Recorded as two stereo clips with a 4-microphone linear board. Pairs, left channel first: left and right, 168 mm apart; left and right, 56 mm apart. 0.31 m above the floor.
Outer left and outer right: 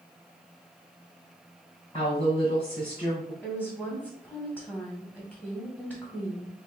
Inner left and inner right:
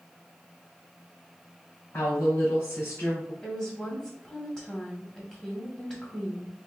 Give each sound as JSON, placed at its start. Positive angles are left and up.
{"t": 1.9, "sound": "a woman speaking", "side_deg": 35, "distance_m": 1.7}
{"t": 3.4, "sound": "a woman speaking", "side_deg": 10, "distance_m": 1.9}